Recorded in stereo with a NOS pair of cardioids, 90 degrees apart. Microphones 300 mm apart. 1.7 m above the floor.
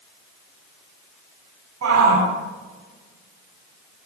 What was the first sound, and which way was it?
A shout, 65° right.